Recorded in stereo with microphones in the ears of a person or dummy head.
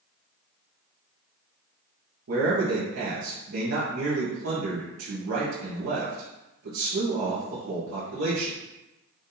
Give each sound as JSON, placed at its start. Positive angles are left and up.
{"t": 2.3, "sound": "a man speaking", "side_deg": -70, "distance_m": 1.3}